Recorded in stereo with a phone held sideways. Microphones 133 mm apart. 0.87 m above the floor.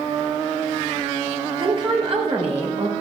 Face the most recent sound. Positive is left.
turn(degrees=-55)  # may be behind; listen again after turning